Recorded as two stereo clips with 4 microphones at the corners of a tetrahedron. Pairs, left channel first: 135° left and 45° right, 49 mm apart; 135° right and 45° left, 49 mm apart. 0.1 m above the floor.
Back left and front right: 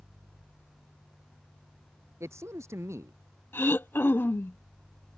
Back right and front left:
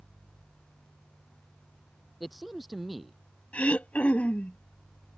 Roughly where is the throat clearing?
Behind.